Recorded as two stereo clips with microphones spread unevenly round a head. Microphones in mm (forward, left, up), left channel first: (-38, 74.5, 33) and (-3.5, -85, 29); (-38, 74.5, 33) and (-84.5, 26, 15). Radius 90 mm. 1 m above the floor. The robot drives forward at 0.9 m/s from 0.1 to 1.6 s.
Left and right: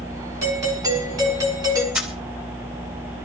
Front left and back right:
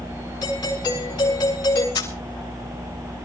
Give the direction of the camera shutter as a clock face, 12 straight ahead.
12 o'clock.